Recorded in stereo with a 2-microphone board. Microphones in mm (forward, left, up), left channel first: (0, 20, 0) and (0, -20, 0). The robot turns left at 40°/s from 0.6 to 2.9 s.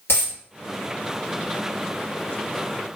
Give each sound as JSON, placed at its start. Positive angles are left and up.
{"t": 0.1, "sound": "a dropped coin", "side_deg": 70, "distance_m": 1.6}